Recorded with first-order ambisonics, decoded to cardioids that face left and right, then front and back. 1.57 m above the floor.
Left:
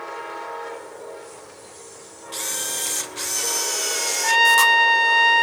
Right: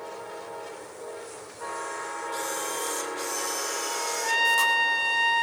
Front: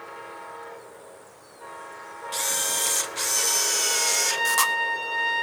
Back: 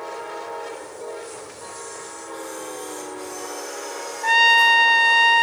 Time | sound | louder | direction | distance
2.3 | a camera shutter | left 6 dB, front 7 dB | 30° left | 1.1 m
4.2 | a trumpet | left 8 dB, back 14 dB | 150° left | 0.9 m